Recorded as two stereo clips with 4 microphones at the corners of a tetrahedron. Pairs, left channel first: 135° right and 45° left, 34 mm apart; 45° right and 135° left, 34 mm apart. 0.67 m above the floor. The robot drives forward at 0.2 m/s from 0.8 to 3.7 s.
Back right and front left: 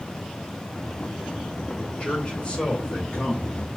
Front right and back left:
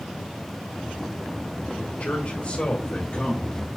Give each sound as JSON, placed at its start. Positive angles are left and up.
{"t": 1.8, "sound": "a man speaking", "azimuth_deg": -75, "distance_m": 1.7}